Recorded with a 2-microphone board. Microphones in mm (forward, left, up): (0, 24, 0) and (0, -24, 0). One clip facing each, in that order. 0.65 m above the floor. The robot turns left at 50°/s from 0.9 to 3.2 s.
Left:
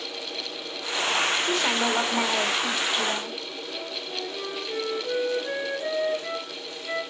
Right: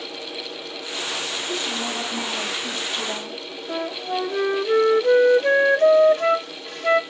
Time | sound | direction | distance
1.4 | a woman speaking | 90° left | 1.4 m
3.7 | a flute | 60° right (ahead or behind) | 0.6 m